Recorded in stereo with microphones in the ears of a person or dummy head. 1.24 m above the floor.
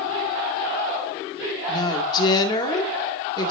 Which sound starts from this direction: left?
A woman speaking, at 1.7 s.